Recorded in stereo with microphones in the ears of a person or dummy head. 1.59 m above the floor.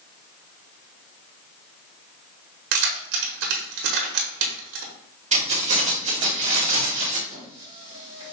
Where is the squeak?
30° right (ahead or behind), 1.3 m.